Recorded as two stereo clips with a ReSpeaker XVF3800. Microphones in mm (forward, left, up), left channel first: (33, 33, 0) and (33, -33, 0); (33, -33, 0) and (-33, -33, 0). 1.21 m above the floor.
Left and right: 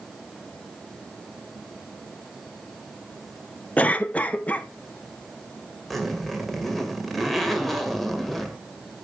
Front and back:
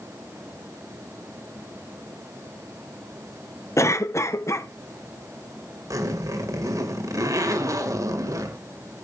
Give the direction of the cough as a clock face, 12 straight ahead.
11 o'clock.